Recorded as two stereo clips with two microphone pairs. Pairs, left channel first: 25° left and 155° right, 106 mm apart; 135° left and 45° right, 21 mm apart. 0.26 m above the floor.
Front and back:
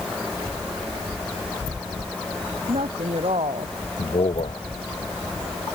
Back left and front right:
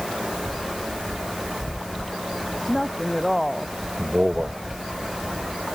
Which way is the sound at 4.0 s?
5° left.